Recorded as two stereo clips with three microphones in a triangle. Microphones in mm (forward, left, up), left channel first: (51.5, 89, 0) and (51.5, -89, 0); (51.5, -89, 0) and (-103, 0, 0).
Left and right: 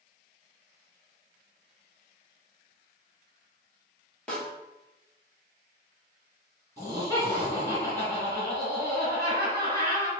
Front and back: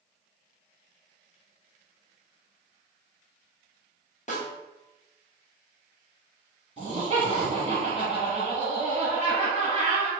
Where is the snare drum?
5° left, 1.4 m.